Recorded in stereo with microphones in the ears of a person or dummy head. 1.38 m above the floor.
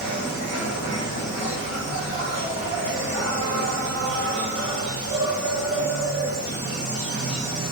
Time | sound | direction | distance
0.0 | an insect | 70° right (ahead or behind) | 1.8 m